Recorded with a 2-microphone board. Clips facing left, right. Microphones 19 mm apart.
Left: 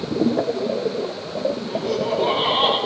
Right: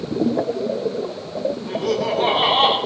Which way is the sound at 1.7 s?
70° right (ahead or behind).